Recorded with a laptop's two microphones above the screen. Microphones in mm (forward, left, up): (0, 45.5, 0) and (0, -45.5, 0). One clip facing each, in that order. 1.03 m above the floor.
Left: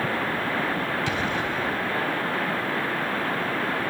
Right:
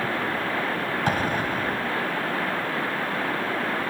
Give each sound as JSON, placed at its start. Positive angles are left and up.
{"t": 1.1, "sound": "an explosion", "side_deg": -45}